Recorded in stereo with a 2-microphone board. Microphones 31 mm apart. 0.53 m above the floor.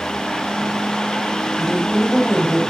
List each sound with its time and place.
1.6 s a woman speaking: 10° left (ahead or behind), 3.5 m